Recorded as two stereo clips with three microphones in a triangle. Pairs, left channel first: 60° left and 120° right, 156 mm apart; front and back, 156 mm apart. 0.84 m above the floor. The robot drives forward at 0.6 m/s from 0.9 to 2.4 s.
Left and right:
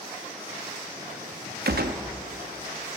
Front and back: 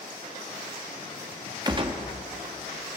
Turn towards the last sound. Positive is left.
turn(degrees=-145)